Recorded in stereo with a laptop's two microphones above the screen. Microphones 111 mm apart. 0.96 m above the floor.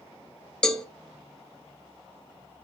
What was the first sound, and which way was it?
A cowbell, 5° left (ahead or behind).